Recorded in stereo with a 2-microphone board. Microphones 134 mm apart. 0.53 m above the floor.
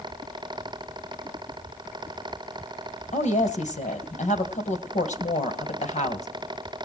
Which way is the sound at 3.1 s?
65° left (ahead or behind).